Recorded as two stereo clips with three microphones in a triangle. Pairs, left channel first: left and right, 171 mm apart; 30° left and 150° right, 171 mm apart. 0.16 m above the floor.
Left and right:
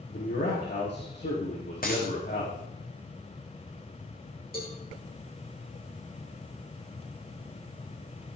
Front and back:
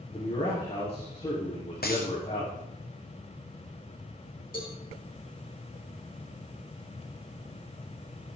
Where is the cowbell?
65° left, 4.5 m.